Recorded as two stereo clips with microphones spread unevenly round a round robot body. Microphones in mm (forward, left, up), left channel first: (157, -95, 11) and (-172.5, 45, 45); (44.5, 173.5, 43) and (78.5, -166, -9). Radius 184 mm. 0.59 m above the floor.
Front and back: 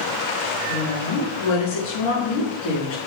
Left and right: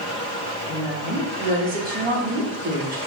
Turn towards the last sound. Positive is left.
turn(degrees=-20)